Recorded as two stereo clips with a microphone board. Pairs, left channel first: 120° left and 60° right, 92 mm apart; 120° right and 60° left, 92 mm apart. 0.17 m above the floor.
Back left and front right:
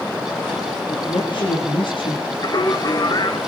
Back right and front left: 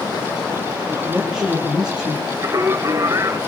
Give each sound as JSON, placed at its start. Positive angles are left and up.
{"t": 0.9, "sound": "a man speaking", "azimuth_deg": 145, "distance_m": 8.5}
{"t": 2.4, "sound": "singing", "azimuth_deg": 100, "distance_m": 1.7}